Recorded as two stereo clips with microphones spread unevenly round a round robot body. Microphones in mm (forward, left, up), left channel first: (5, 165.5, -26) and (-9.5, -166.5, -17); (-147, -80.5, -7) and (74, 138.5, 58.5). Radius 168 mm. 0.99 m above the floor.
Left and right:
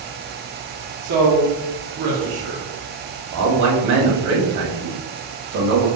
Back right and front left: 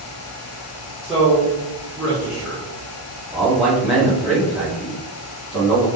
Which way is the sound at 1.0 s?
50° right.